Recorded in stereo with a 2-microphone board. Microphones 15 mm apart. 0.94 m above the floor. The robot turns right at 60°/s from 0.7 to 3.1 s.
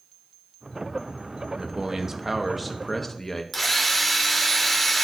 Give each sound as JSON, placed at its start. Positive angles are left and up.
{"t": 1.5, "sound": "a man speaking", "azimuth_deg": -75, "distance_m": 0.9}
{"t": 3.5, "sound": "a drill", "side_deg": 5, "distance_m": 1.7}